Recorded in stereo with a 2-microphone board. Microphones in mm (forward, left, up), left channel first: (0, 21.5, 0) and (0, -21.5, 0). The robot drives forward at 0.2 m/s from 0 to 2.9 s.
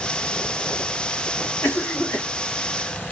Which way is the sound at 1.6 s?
55° left (ahead or behind).